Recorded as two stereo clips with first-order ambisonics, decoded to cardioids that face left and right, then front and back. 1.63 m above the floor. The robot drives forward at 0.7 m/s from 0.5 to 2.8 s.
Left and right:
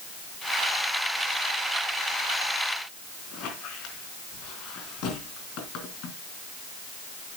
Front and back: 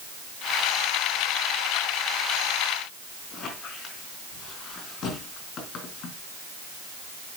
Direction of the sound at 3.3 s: 60° left.